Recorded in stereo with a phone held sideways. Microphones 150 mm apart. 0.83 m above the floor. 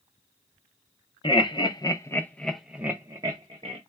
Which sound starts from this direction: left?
Laughter, at 1.2 s.